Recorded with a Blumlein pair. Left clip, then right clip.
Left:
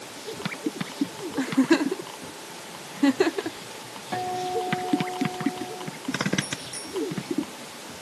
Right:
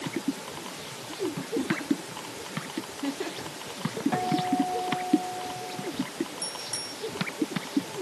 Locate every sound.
1.4 s a giggle: 60° left, 0.6 m
4.1 s a guitar: 5° right, 3.5 m
6.4 s a bicycle bell: 70° right, 5.5 m